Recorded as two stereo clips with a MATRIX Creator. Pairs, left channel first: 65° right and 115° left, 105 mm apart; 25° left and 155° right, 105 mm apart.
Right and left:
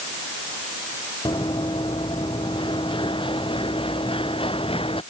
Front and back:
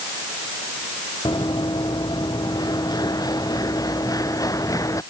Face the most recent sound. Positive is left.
turn(degrees=-35)